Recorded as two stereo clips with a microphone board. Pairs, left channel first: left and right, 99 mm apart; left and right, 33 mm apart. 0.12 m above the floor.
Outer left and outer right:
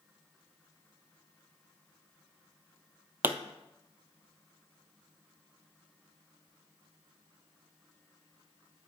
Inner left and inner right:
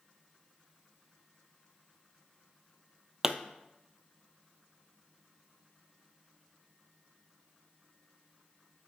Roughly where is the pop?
Centre.